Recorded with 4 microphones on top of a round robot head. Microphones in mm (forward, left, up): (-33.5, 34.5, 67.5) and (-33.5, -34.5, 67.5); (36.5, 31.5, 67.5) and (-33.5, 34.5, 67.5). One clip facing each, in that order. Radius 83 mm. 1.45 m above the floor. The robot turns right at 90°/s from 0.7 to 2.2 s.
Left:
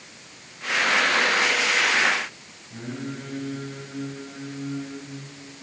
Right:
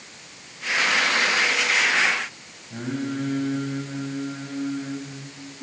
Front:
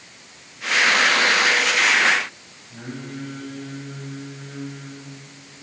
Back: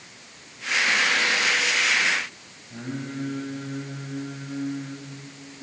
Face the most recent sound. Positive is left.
turn(degrees=-120)